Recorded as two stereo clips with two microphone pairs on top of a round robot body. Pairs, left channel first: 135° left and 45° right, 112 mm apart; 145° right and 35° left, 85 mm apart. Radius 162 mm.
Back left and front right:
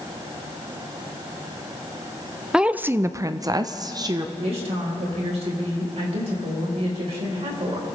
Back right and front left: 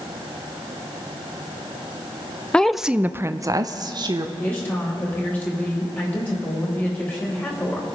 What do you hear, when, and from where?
2.5 s a woman speaking: 115° right, 0.7 m; by 4.3 s straight ahead, 1.2 m
4.4 s a woman speaking: 75° right, 4 m